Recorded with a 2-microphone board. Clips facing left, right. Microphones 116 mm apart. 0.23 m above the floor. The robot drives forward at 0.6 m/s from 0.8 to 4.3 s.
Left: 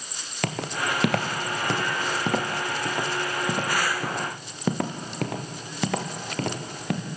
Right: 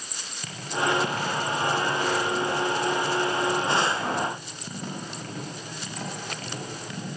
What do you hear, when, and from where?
0.4 s footsteps: 70° left (ahead or behind), 2.5 m; by 7.1 s 60° left (ahead or behind), 5 m